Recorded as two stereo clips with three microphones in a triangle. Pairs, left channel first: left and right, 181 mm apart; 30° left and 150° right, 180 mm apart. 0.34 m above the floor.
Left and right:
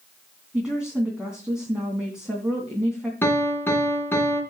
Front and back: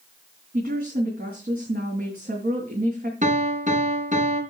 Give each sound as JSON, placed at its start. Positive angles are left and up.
{"t": 0.5, "sound": "a woman speaking", "azimuth_deg": -175, "distance_m": 3.0}
{"t": 3.2, "sound": "a piano", "azimuth_deg": 170, "distance_m": 3.0}